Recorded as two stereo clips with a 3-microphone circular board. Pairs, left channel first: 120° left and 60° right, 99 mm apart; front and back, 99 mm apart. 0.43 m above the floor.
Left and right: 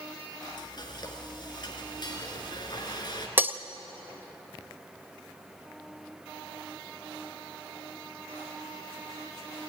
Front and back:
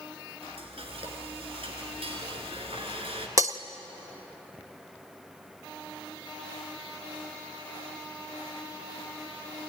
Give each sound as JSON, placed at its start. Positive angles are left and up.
{"t": 0.4, "sound": "frying", "azimuth_deg": 160, "distance_m": 3.0}
{"t": 3.4, "sound": "breaking glass", "azimuth_deg": -130, "distance_m": 0.8}